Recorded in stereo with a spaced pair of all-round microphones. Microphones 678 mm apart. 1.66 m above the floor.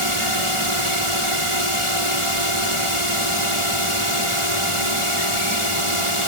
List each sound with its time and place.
0.0 s a drone: 45° right (ahead or behind)